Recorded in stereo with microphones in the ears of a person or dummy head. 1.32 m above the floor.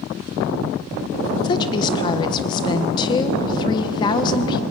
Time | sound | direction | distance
1.4 | a woman speaking | 25° left (ahead or behind) | 1.2 m